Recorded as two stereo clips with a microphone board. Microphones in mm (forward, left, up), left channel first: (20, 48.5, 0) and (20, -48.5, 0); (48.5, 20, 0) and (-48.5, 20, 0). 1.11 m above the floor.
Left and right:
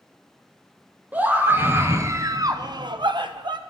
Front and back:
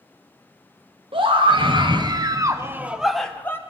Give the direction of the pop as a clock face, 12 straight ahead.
I don't hear a pop.